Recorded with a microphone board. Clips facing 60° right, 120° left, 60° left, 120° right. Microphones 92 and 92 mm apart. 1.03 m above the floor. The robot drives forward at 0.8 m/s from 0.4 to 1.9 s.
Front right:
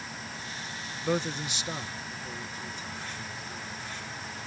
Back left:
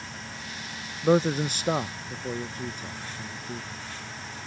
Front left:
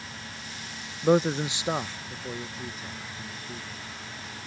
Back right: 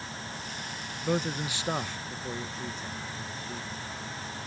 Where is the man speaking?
70° left; by 3.7 s 140° left.